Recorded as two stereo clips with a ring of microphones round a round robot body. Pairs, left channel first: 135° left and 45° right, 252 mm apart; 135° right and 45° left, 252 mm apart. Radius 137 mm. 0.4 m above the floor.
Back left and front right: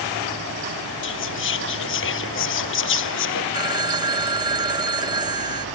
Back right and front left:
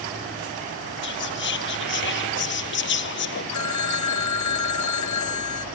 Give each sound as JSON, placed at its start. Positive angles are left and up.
{"t": 1.0, "sound": "whispering", "azimuth_deg": 180}
{"t": 3.5, "sound": "a phone ringing", "azimuth_deg": -120}